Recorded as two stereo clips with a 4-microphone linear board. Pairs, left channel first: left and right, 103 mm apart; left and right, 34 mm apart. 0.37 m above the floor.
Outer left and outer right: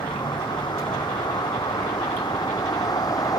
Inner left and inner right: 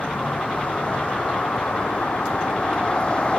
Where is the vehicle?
45° left (ahead or behind); by 3.4 s 35° left (ahead or behind).